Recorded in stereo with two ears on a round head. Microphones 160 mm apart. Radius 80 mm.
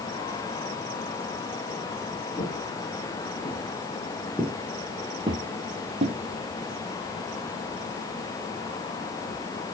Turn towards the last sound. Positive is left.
turn(degrees=-40)  # may be behind; listen again after turning